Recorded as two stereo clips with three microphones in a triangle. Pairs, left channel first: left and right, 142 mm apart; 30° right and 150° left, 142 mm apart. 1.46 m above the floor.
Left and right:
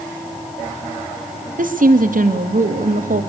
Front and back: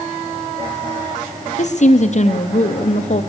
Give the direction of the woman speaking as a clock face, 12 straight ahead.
2 o'clock.